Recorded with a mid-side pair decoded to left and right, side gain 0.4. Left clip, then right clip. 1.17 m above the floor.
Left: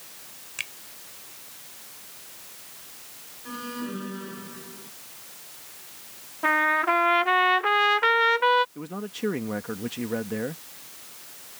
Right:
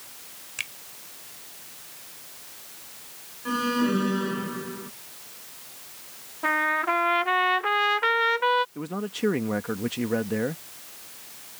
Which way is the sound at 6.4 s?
20° left.